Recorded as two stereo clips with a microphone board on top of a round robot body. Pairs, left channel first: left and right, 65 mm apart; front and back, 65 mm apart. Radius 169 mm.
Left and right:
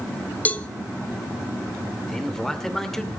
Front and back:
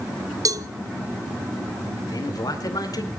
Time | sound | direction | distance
0.5 | a cowbell | 155° left | 0.9 m
2.1 | a man speaking | 5° left | 2.5 m